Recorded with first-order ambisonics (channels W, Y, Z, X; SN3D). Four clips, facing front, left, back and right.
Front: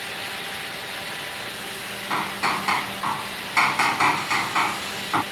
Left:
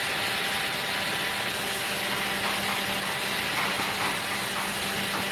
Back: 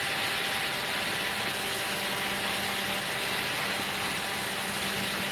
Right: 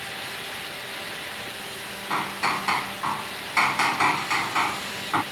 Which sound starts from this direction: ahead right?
Hammering, at 2.1 s.